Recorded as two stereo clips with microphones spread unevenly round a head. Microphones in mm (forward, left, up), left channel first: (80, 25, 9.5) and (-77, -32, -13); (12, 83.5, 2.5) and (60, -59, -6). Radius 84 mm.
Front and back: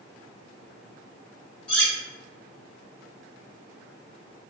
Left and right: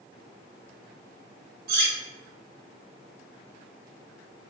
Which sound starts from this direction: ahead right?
Cutlery clinking, at 1.7 s.